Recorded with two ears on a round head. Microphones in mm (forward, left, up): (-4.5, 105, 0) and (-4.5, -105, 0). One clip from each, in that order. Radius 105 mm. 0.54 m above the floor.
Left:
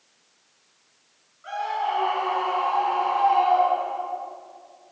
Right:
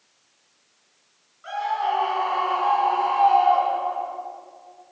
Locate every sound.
1.4 s a scream: 20° right (ahead or behind), 7.5 m; by 4.2 s 30° right (ahead or behind), 6 m